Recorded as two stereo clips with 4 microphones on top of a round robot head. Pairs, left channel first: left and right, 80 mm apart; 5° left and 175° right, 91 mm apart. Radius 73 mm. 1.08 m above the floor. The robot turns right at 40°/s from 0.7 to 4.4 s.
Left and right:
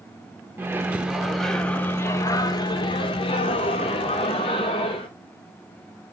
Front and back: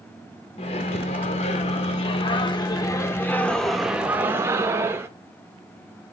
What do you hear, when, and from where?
0.6 s a microwave: 25° right, 0.6 m; by 5.1 s 120° left, 0.6 m